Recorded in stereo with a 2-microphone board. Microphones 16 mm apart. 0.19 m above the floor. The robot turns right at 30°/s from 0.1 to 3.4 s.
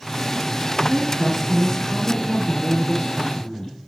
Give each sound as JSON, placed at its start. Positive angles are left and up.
{"t": 0.9, "sound": "a woman speaking", "azimuth_deg": -15, "distance_m": 2.5}